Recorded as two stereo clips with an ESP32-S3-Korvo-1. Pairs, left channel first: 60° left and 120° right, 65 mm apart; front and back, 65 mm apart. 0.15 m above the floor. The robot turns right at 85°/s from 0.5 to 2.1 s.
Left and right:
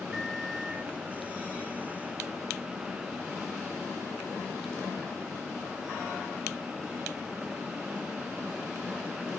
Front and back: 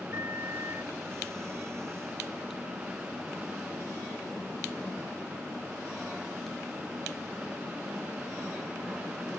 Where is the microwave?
160° left, 1.2 m; by 0.9 s 165° right, 1.2 m.